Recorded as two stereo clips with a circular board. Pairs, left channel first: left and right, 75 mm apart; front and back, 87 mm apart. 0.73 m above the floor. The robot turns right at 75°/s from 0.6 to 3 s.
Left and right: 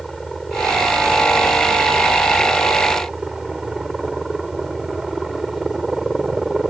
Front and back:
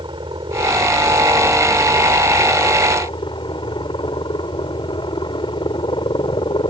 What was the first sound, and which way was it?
A helicopter, 175° left.